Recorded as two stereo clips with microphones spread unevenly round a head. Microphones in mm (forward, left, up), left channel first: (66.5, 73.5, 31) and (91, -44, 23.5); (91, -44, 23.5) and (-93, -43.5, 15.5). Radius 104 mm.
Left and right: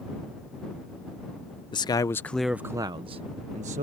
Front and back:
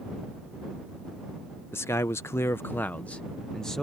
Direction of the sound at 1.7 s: 75° left.